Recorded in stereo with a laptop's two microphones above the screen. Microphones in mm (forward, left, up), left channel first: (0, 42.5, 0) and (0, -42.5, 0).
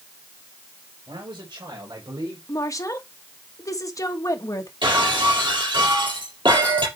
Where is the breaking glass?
70° right (ahead or behind), 4 m.